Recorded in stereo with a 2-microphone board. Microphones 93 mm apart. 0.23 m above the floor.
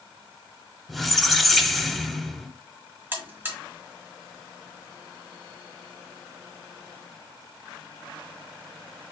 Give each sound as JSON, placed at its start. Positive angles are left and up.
{"t": 0.9, "sound": "a squeak", "side_deg": 0, "distance_m": 0.6}
{"t": 3.1, "sound": "a buzzer", "side_deg": -25, "distance_m": 1.4}